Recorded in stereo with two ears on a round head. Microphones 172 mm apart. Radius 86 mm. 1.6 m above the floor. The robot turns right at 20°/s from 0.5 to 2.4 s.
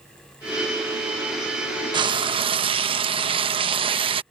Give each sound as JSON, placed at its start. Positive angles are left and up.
{"t": 1.9, "sound": "frying", "side_deg": -25}